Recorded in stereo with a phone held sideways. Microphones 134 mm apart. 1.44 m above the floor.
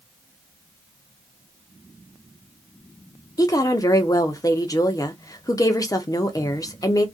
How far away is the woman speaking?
About 0.5 m.